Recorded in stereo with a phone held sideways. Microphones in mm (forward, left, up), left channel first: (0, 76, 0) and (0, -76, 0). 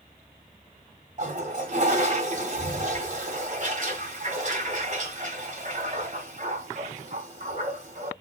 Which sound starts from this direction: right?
A toilet flushing, at 1.2 s.